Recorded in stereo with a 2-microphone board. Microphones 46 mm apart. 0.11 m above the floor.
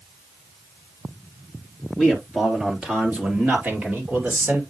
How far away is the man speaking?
About 2.5 m.